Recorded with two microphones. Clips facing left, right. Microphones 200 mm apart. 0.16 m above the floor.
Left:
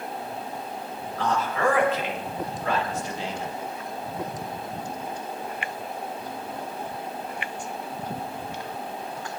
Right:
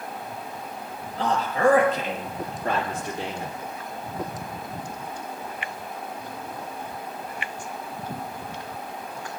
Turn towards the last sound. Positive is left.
turn(degrees=-55)  # may be behind; listen again after turning